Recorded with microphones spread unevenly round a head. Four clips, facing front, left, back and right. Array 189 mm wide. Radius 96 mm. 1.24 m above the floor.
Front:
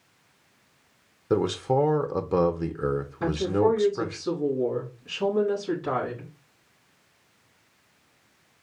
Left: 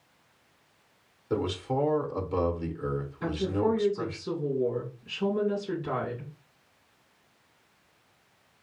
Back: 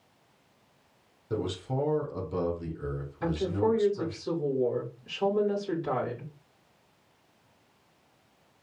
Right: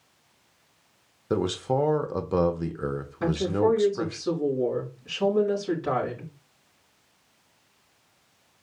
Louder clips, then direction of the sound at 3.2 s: Right 5 dB, front 4 dB; 50° right.